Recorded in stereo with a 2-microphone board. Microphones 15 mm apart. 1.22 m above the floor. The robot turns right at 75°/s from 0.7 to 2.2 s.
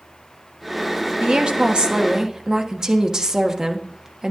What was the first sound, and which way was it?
A woman speaking, 120° right.